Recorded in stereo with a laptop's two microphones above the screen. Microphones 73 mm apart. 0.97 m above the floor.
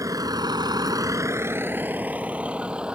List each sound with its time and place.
0.0 s a vehicle: 55° right (ahead or behind); by 3.0 s 15° right (ahead or behind)